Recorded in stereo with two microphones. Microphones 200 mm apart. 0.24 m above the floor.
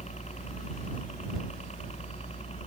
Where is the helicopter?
35° left (ahead or behind); by 2.7 s 30° left (ahead or behind).